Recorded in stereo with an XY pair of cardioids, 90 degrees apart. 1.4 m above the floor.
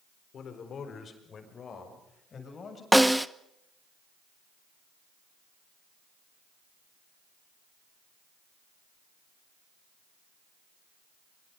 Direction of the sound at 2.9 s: 5° right.